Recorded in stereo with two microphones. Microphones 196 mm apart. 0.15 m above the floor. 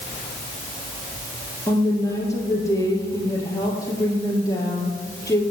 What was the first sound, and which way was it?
A woman speaking, 15° left (ahead or behind).